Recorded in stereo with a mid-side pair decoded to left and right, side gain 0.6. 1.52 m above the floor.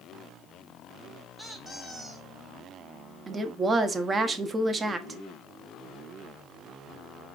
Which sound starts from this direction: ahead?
A squeak, at 1.4 s.